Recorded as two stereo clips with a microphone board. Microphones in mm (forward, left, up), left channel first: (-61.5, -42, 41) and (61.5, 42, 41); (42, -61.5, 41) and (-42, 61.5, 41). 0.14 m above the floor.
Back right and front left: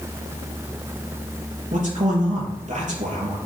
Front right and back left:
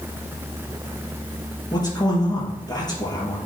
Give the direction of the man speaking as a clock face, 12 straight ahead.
12 o'clock.